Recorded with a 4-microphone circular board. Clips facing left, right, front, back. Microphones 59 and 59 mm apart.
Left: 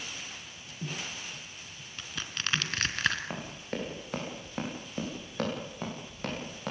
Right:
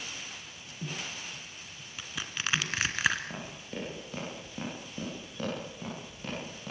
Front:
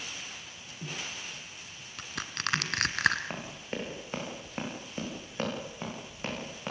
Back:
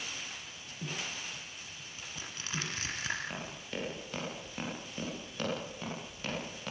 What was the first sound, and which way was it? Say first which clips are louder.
Crushing: right 1 dB, front 9 dB; 10° right.